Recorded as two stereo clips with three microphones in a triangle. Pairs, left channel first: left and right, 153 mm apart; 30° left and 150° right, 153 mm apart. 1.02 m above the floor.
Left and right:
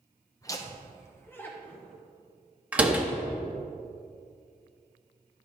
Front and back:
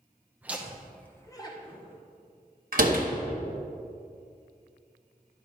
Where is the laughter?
140° left, 0.9 m; by 2.0 s 5° left, 1.0 m.